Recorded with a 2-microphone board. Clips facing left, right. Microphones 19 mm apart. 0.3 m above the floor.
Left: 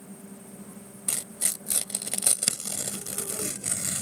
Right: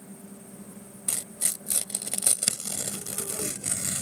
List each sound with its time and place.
1.1 s tearing paper: 15° left (ahead or behind)